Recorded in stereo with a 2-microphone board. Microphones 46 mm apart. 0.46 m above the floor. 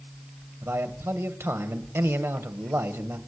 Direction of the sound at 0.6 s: 65° right (ahead or behind).